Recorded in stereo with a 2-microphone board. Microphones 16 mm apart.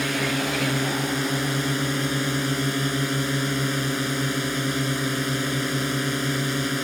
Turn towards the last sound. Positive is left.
turn(degrees=5)  # may be behind; listen again after turning